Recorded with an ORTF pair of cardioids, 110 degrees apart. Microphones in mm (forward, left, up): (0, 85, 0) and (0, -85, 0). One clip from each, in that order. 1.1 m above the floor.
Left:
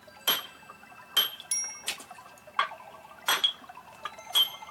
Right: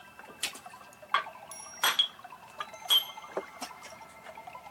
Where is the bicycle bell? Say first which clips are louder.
Left 4 dB; 65° left, 2 m.